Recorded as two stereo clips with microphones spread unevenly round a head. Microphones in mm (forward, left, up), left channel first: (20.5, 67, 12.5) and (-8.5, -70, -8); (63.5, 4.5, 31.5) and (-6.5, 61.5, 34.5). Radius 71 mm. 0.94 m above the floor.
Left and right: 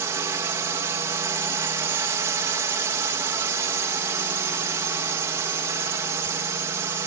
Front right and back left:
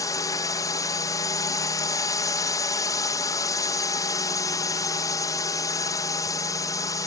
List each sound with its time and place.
0.0 s a drone: 50° right